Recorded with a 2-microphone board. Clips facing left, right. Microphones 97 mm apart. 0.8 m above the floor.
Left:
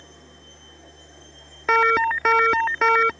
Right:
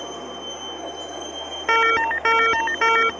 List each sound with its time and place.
0.0 s a vehicle: 75° right (ahead or behind)
1.7 s an alarm: 5° left (ahead or behind)